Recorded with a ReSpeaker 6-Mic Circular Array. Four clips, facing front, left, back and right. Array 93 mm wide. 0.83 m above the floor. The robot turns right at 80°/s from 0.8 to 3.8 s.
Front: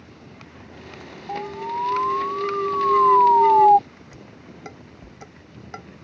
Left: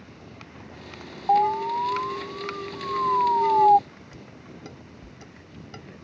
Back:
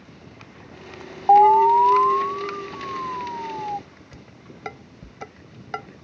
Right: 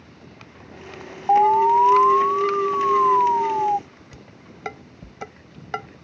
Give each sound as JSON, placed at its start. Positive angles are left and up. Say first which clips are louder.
{"t": 1.3, "sound": "an alarm", "louder": "right 6 dB, back 17 dB", "azimuth_deg": -170}
{"t": 4.1, "sound": "dishes clattering", "louder": "left 2 dB, front 2 dB", "azimuth_deg": -115}